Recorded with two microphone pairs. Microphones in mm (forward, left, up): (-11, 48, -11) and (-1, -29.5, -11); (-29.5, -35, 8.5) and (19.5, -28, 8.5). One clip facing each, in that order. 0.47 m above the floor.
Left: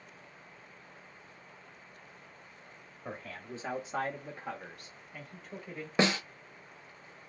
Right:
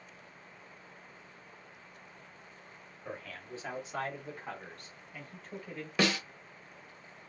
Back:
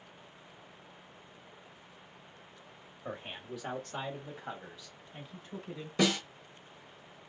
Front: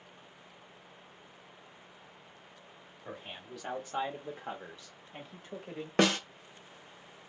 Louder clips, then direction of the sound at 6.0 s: Left 2 dB, front 2 dB; 35° left.